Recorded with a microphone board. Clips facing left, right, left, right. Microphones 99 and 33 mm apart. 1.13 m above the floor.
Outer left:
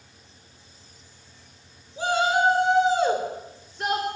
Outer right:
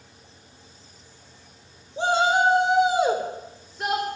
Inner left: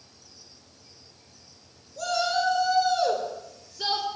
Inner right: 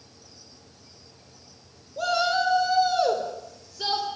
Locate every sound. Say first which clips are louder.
2.0 s a shout: outer right 2 dB, inner right 2 dB; 30° right (ahead or behind), 3.5 m; by 4.1 s 5° left (ahead or behind), 3.5 m